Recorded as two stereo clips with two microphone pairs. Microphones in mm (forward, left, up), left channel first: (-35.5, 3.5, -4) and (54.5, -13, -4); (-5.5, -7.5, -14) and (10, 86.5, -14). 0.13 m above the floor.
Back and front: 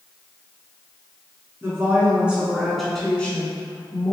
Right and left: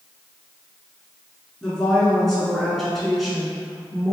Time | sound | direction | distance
1.6 | a woman speaking | 20° right | 1.3 m